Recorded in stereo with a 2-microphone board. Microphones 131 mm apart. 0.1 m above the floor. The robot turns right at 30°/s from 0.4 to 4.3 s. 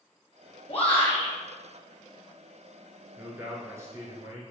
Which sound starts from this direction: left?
A shout, at 0.7 s.